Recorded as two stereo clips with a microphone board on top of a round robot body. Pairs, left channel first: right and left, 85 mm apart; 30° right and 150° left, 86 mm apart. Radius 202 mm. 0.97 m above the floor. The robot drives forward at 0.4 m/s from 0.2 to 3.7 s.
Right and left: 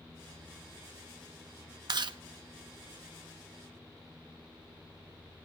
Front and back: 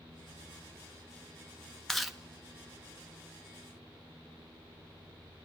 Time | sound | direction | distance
1.9 | chewing | 55° left | 0.6 m